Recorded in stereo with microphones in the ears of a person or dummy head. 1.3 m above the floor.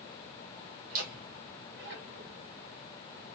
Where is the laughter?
45° right (ahead or behind), 0.6 m; by 2.5 s 65° right (ahead or behind), 1.7 m.